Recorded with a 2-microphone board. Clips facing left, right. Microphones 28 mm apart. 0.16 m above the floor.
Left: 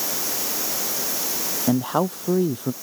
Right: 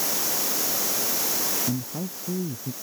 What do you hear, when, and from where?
1.7 s a man speaking: 75° left (ahead or behind)